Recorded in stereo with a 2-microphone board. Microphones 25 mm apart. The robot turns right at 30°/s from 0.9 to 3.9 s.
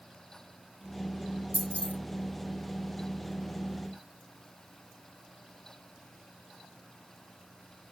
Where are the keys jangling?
70° left (ahead or behind), 3.5 m; by 1.9 s 60° left (ahead or behind), 3.5 m.